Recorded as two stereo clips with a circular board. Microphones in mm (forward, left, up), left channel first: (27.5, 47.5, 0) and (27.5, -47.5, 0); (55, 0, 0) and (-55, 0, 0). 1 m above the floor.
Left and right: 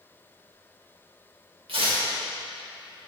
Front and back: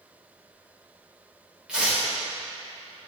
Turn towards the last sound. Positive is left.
turn(degrees=-100)